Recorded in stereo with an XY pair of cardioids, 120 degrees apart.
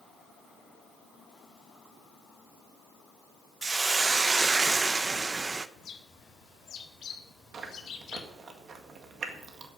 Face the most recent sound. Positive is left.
turn(degrees=-45)